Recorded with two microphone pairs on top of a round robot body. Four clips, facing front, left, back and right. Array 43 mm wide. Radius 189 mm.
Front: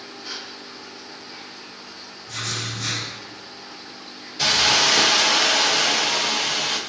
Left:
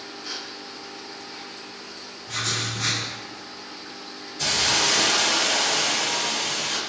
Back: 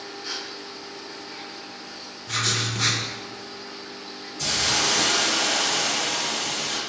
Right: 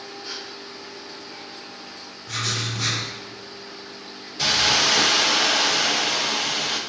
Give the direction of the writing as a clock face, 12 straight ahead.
6 o'clock.